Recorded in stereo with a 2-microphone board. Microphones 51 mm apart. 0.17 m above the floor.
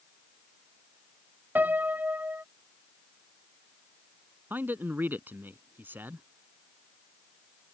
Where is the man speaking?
45° right (ahead or behind).